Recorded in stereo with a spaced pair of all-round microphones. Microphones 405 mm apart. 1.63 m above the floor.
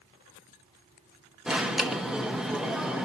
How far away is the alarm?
About 0.6 m.